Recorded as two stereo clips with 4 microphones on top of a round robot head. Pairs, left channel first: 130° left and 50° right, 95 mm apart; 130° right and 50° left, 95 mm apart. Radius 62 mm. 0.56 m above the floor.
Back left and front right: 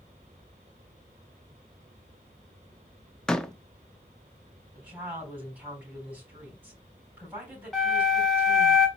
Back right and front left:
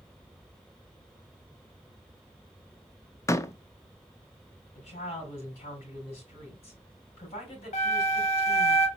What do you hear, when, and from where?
3.3 s a door slam: 150° right, 0.6 m
4.8 s a woman speaking: 120° right, 4 m
7.7 s a flute: 145° right, 1.4 m